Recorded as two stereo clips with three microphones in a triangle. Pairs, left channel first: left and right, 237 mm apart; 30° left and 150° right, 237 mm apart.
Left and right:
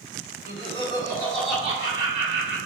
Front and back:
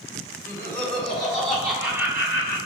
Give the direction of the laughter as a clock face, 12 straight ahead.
9 o'clock.